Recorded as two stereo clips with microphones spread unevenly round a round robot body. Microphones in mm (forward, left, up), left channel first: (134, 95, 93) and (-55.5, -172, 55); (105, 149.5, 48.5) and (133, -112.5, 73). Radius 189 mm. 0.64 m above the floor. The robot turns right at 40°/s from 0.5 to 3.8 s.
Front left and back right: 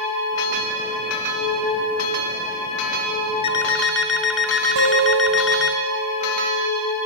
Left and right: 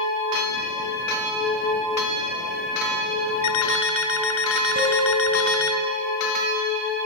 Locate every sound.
3.4 s an alarm clock: 130° left, 1.8 m; by 5.8 s 145° left, 1.8 m
4.8 s a guitar: 150° right, 4.5 m